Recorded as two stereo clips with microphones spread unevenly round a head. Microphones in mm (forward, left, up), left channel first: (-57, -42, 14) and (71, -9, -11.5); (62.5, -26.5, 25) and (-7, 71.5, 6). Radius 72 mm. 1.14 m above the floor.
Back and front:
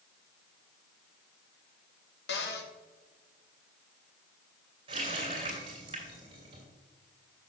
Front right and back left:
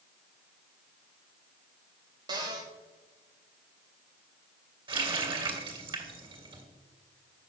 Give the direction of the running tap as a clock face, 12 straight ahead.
10 o'clock.